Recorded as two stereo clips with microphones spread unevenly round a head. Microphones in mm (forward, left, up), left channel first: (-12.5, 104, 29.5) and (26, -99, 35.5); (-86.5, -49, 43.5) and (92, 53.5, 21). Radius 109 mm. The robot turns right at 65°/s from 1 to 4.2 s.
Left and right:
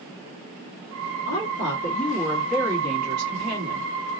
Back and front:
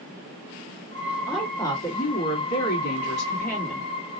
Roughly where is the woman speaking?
Behind left.